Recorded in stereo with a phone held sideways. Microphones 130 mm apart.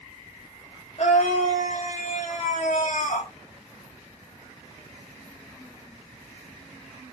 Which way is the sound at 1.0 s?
55° left (ahead or behind).